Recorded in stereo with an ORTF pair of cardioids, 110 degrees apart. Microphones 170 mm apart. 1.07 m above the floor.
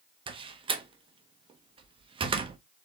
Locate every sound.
0.3 s a door slam: 30° right, 0.8 m